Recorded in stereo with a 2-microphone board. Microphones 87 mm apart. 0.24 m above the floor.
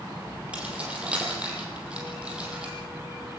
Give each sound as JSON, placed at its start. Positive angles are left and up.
{"t": 0.5, "sound": "keys jangling", "side_deg": -15, "distance_m": 5.5}